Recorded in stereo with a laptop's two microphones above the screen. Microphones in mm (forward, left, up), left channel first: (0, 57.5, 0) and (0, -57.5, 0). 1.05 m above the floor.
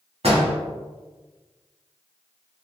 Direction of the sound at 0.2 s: 60° right (ahead or behind).